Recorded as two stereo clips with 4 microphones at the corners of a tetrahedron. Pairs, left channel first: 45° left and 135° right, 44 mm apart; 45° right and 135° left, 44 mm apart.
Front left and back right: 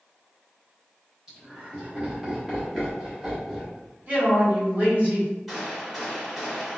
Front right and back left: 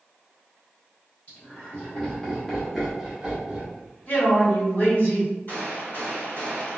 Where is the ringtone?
No ringtone in this recording.